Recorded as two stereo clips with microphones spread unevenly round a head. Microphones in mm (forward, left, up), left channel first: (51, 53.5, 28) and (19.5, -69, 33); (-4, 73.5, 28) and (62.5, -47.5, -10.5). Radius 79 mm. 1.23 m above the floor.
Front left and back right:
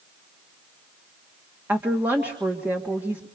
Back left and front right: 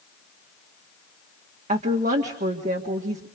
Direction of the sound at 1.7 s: 30° right.